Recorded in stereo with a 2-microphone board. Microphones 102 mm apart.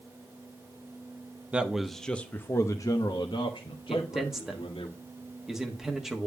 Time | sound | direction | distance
1.5 | a man speaking | 10° right (ahead or behind) | 0.9 m
3.9 | a man speaking | 5° right (ahead or behind) | 1.2 m